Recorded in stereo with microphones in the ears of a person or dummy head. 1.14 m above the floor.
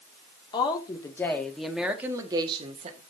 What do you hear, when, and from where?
0.5 s a woman speaking: 30° left (ahead or behind), 2 m; by 3.0 s 40° right (ahead or behind), 1.8 m